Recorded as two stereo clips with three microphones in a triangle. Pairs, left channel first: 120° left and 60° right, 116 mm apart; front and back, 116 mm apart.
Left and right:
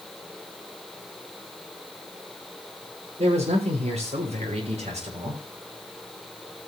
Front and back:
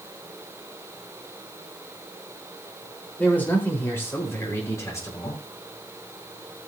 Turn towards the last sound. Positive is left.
turn(degrees=-60)